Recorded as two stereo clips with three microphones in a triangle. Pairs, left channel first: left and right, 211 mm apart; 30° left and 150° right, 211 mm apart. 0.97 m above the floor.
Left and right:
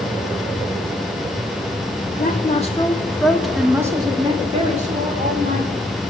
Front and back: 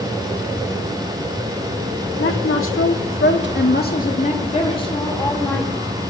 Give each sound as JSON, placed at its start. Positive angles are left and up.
{"t": 2.2, "sound": "a woman speaking", "azimuth_deg": 45, "distance_m": 1.7}